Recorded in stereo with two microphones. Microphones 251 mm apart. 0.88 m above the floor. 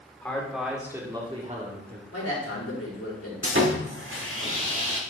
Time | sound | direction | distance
0.2 | a man speaking | 5° left (ahead or behind) | 2.5 m
2.1 | a man speaking | 75° left (ahead or behind) | 4 m
3.4 | sawing | 55° right (ahead or behind) | 1.6 m